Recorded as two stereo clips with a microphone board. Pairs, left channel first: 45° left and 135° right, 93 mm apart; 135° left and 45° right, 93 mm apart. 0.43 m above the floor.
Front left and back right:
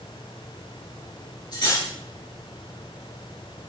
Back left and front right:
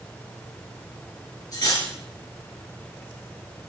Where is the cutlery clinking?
90° left, 4.5 m.